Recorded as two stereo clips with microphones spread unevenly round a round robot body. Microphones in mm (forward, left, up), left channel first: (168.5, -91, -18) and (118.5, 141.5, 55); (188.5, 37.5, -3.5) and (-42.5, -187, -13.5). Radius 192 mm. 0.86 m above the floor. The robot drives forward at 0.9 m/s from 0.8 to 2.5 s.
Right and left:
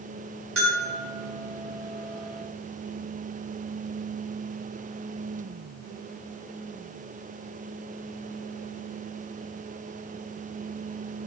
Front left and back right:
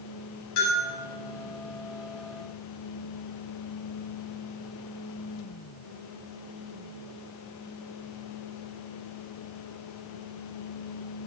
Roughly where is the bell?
Left.